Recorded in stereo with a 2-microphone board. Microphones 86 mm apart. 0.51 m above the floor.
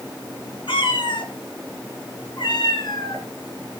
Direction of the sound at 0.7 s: 80° left.